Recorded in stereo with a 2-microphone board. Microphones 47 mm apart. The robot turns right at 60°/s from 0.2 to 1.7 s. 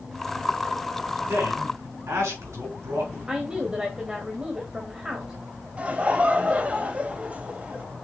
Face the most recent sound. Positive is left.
turn(degrees=-25)  # may be behind; listen again after turning